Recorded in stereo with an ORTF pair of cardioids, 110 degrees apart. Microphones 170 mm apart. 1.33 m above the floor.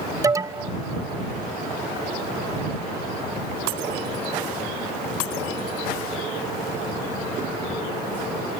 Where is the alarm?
20° right.